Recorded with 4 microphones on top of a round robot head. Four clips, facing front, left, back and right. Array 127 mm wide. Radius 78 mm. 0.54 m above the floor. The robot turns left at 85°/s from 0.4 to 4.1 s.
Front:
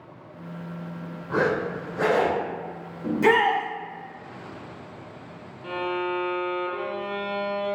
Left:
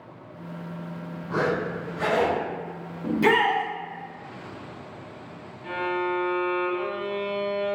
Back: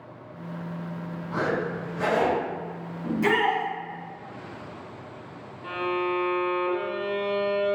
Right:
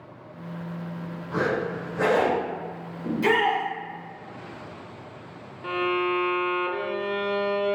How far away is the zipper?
About 1.0 m.